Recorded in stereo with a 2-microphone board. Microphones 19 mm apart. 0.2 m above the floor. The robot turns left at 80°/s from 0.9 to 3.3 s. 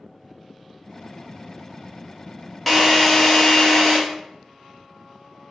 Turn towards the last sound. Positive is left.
turn(degrees=20)  # may be behind; listen again after turning